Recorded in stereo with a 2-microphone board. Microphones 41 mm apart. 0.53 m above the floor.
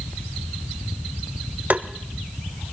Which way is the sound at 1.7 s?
45° right (ahead or behind).